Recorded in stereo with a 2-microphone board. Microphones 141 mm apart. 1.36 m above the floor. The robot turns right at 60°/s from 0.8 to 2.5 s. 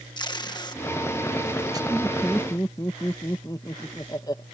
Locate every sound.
0.2 s tape being pulled: 30° left (ahead or behind); by 1.8 s 30° right (ahead or behind)
1.9 s laughter: 10° right; by 4.4 s 25° left